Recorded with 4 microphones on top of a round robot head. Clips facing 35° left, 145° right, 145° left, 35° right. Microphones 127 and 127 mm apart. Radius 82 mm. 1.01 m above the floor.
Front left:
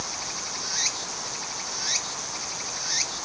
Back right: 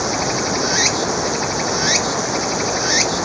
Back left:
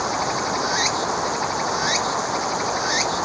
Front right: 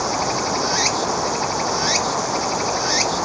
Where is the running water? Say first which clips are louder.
Back right 17 dB, front right 2 dB; 115° right.